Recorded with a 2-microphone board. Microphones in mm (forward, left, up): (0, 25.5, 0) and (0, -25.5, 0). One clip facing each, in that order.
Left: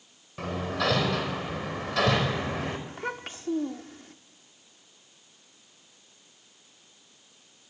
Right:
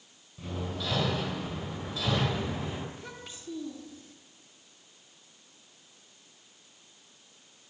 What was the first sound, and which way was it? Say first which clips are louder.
Hammering: left 7 dB; 70° left (ahead or behind).